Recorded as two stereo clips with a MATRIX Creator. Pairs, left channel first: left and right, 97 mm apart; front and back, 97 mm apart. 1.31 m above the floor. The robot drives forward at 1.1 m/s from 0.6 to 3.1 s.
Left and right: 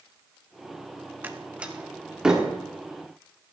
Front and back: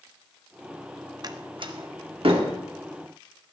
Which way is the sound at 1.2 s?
155° right.